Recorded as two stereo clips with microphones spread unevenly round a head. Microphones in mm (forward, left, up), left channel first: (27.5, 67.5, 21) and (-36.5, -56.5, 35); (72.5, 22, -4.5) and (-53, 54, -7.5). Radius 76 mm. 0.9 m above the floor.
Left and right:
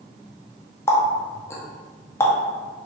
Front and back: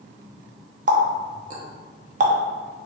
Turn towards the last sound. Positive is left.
turn(degrees=135)